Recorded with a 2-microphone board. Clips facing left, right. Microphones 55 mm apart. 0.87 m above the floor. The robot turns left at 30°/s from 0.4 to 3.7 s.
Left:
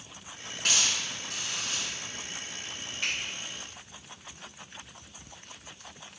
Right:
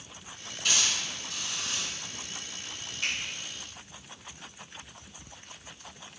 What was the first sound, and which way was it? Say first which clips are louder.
A hiss: even; 65° left (ahead or behind).